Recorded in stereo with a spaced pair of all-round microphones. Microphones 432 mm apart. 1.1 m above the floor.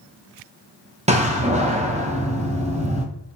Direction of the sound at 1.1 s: 15° right (ahead or behind).